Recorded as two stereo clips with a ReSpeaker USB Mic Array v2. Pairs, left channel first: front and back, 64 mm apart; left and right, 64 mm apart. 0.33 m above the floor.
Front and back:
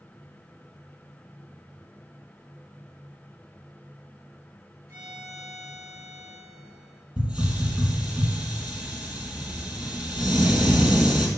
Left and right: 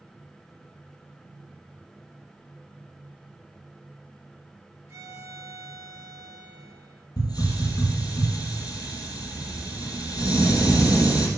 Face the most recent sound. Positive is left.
turn(degrees=110)